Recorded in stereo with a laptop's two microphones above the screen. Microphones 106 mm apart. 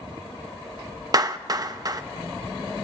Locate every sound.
1.1 s a clap: 35° right (ahead or behind), 0.7 m